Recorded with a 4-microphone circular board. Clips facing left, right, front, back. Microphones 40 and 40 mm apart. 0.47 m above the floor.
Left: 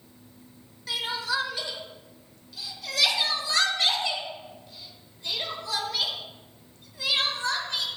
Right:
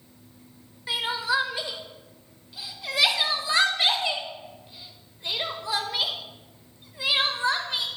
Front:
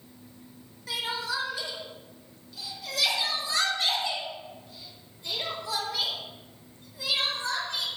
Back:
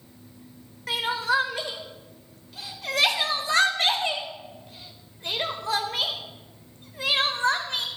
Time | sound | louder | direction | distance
0.9 | crying | right 3 dB, back 7 dB | 155° right | 1.0 m